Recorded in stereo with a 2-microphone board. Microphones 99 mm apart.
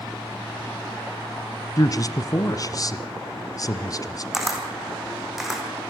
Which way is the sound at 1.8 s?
40° left (ahead or behind).